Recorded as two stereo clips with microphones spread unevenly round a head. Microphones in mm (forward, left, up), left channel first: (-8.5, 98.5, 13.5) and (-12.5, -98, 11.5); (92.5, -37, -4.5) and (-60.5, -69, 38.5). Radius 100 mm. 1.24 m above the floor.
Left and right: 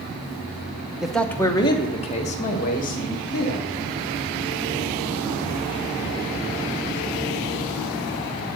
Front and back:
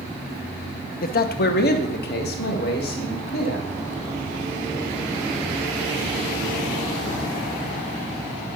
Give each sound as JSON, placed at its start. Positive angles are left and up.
{"t": 1.0, "sound": "a man speaking", "azimuth_deg": -5, "distance_m": 0.8}